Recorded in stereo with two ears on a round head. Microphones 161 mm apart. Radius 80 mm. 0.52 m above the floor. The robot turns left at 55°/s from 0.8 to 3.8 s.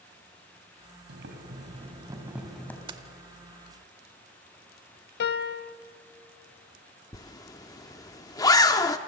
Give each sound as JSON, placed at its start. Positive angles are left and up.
{"t": 1.1, "sound": "boiling", "azimuth_deg": -100, "distance_m": 2.5}
{"t": 2.9, "sound": "keys jangling", "side_deg": -30, "distance_m": 0.9}
{"t": 5.2, "sound": "a piano", "side_deg": 60, "distance_m": 0.5}
{"t": 7.1, "sound": "a zipper", "side_deg": 20, "distance_m": 0.7}